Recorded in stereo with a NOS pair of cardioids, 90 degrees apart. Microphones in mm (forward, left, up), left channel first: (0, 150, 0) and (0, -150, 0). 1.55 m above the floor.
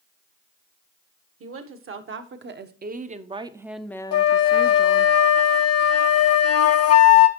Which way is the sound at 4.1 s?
60° left.